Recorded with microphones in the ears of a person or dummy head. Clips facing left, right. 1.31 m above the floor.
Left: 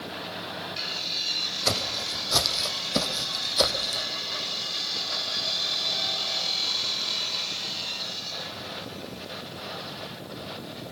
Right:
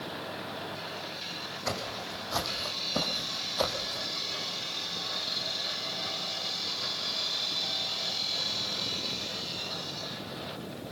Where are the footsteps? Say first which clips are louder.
Left 4 dB; 55° left (ahead or behind), 4.5 m; by 4.0 s 30° left (ahead or behind), 3.5 m.